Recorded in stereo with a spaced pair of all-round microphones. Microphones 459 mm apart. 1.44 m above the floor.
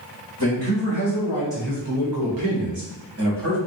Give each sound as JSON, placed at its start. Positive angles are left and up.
{"t": 0.4, "sound": "a man speaking", "side_deg": -70, "distance_m": 1.5}